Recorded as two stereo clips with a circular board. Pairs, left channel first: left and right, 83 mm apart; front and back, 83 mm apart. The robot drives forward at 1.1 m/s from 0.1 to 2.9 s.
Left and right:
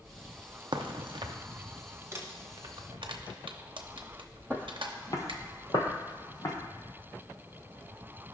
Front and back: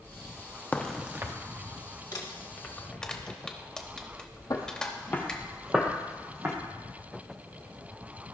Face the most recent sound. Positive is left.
turn(degrees=125)